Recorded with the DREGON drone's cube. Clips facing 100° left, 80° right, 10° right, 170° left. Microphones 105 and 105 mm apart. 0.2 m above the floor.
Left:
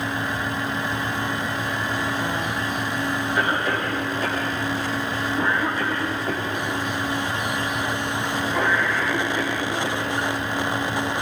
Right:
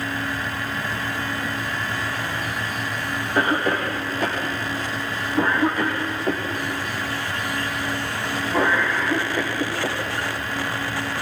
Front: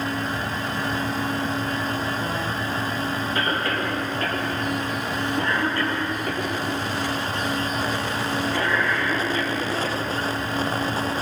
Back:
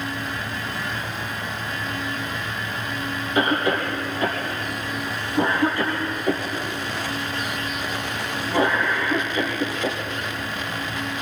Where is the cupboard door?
I don't hear a cupboard door.